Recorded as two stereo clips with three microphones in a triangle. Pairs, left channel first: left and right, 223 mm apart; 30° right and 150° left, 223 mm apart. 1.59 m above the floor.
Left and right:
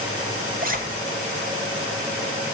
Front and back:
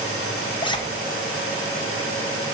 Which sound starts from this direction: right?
A zipper, at 0.6 s.